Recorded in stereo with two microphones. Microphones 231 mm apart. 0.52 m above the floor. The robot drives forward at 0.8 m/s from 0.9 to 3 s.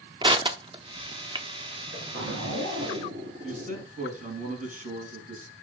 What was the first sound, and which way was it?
Crushing, 20° right (ahead or behind).